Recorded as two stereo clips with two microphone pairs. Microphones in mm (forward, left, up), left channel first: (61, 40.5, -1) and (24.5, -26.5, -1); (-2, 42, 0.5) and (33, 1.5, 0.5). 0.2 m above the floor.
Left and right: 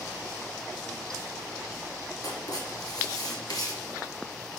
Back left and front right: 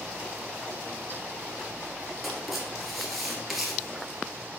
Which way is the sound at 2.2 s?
40° left.